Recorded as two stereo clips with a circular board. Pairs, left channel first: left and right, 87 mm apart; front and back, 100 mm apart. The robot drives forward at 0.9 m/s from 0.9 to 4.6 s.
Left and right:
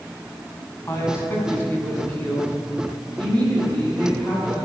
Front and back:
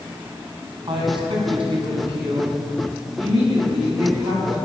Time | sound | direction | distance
0.9 | a woman speaking | 150° left | 2.5 m